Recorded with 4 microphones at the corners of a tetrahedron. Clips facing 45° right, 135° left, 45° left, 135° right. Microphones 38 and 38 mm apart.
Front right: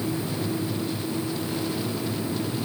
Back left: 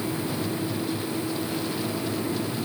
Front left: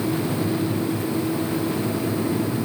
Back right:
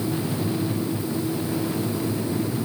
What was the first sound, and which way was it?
Only background noise.